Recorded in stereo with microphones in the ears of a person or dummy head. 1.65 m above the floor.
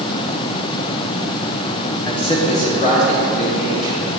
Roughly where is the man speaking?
Centre.